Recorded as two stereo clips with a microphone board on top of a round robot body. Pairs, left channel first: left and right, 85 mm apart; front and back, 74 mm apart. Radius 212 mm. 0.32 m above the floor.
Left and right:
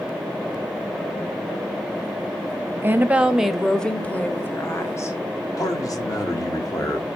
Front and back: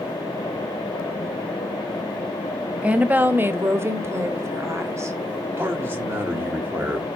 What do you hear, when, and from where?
2.8 s a woman speaking: 125° right, 1.0 m; by 5.2 s 135° left, 1.5 m
5.6 s a man speaking: 125° left, 1.6 m